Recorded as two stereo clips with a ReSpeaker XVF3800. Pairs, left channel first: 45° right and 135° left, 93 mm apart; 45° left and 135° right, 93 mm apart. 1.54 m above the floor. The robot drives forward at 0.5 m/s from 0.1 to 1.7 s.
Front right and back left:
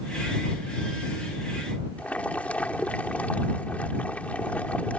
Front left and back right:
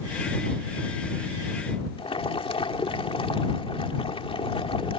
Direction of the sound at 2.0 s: 30° left.